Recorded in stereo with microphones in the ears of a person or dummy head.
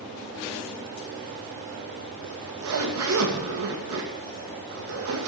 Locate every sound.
2.2 s a zipper: 70° right (ahead or behind), 2.5 m